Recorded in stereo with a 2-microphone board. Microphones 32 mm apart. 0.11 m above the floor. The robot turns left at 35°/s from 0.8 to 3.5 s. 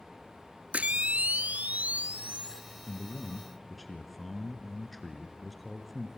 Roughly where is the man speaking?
Centre.